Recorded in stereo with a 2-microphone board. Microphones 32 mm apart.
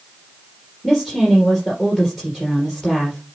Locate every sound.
0.8 s a woman speaking: 20° left (ahead or behind), 3.5 m